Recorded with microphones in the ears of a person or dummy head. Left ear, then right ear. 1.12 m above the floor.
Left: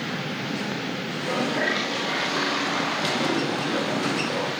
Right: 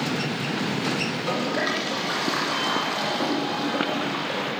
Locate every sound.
1.1 s a toilet flushing: 50° right (ahead or behind), 8.5 m